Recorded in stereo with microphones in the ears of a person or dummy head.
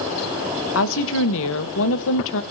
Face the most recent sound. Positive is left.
turn(degrees=65)  # may be behind; listen again after turning